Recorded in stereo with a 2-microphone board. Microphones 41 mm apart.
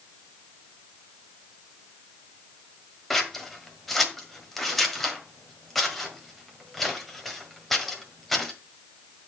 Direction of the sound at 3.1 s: 5° left (ahead or behind).